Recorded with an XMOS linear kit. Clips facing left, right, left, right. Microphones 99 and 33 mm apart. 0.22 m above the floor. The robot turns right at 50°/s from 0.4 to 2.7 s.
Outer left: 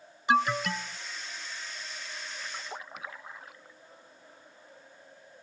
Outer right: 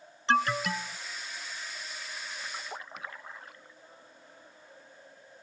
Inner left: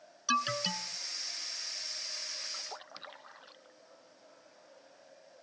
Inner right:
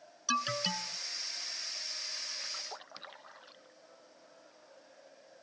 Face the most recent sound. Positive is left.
turn(degrees=0)  # may be behind; listen again after turning